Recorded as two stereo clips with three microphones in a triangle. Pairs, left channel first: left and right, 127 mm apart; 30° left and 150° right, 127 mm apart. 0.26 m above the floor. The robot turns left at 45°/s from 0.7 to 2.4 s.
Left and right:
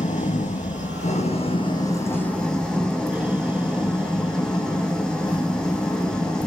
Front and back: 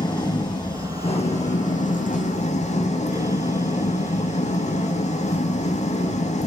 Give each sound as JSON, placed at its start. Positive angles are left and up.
{"t": 0.0, "sound": "an engine running", "azimuth_deg": 85, "distance_m": 3.5}